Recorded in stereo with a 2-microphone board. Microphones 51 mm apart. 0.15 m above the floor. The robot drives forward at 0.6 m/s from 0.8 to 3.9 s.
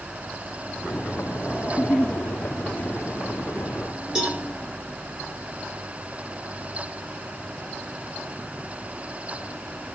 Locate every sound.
1.7 s a giggle: 35° left (ahead or behind), 2 m; by 2.2 s 30° left (ahead or behind), 2.5 m
4.2 s a cowbell: 15° right (ahead or behind), 8.5 m